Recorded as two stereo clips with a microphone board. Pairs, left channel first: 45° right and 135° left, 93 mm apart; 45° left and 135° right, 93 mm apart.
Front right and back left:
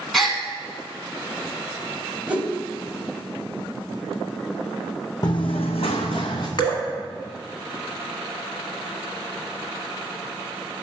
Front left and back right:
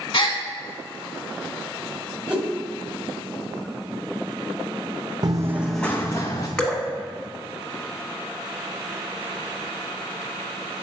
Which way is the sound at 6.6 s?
35° right.